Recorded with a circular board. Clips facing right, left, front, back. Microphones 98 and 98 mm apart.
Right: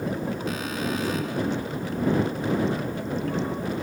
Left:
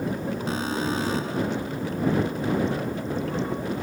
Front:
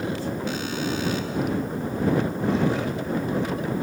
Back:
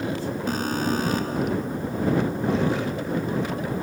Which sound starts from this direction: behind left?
An alarm, at 0.5 s.